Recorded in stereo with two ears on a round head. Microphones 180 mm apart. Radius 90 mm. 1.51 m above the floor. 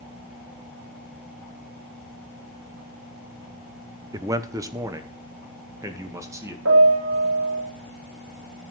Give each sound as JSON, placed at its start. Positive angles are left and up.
{"t": 4.1, "sound": "a man speaking", "side_deg": -20, "distance_m": 0.9}
{"t": 6.7, "sound": "a piano", "side_deg": -80, "distance_m": 5.0}